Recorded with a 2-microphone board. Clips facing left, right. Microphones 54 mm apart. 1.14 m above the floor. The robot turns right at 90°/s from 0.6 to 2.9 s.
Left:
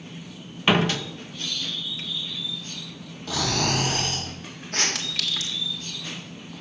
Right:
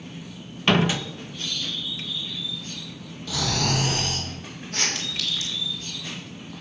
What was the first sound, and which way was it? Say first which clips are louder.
A door slam: even; 170° left.